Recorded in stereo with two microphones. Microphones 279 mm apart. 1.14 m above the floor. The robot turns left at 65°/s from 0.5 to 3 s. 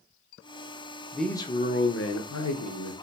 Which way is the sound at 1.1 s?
175° right.